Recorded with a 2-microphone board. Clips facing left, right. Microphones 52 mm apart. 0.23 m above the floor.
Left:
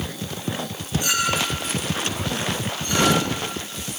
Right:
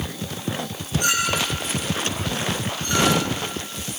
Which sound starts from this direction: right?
A clink, at 1.0 s.